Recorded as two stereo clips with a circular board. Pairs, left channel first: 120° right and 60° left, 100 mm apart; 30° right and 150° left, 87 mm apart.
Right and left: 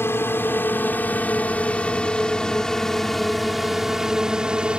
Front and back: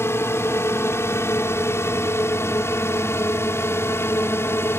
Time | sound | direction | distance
0.0 | a drone | 70° right | ?